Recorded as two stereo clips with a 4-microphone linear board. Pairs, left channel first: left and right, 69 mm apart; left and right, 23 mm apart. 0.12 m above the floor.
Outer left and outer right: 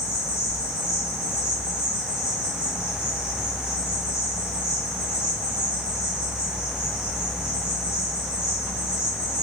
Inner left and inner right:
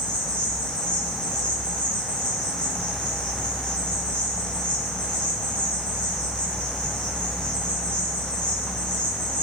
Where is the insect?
40° left (ahead or behind), 3.5 m.